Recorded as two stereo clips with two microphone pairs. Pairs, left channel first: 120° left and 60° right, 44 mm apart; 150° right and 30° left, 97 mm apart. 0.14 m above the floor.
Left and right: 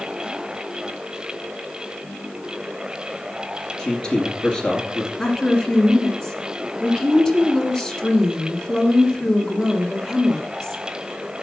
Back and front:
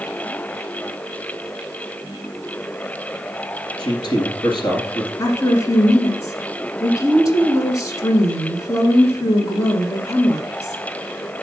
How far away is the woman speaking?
About 1.8 m.